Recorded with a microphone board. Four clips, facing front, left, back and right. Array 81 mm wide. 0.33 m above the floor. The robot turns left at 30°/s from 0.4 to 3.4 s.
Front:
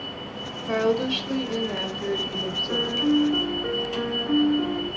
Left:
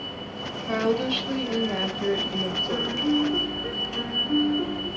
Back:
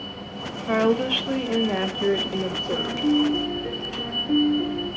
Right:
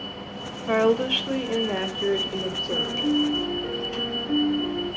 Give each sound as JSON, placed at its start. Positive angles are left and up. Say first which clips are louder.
{"t": 0.7, "sound": "a woman speaking", "louder": "right 4 dB, back 2 dB", "azimuth_deg": -120, "distance_m": 0.9}
{"t": 2.7, "sound": "a piano", "louder": "even, even", "azimuth_deg": 30, "distance_m": 1.8}